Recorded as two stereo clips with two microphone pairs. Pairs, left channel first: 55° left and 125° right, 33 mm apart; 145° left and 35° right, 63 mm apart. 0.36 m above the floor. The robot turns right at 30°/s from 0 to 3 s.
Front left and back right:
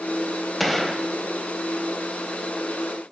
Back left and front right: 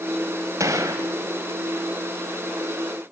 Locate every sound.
0.6 s a gunshot: 35° right, 1.4 m; by 1.1 s 20° right, 1.4 m